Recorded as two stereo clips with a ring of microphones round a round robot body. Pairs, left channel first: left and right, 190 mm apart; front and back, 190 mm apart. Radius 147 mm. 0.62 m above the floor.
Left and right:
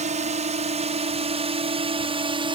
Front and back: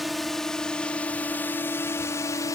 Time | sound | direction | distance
0.0 | a drone | 90° right | ?